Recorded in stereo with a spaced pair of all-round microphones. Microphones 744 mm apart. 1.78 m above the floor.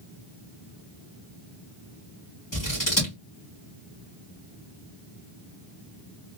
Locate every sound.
2.5 s scissors: 25° left (ahead or behind), 2 m